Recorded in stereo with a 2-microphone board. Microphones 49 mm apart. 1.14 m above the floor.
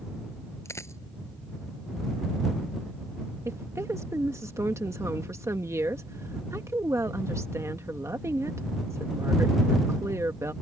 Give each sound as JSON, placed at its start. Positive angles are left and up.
{"t": 0.7, "sound": "a dropped coin", "side_deg": 75}
{"t": 3.5, "sound": "a woman speaking", "side_deg": -80}